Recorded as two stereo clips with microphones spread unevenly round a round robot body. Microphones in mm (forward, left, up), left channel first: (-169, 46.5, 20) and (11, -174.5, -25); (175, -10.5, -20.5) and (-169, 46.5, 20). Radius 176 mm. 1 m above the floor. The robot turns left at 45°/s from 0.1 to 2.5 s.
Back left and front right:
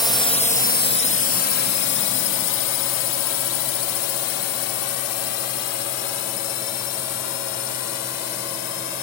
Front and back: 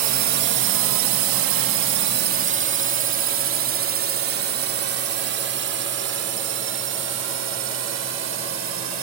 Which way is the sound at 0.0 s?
150° right.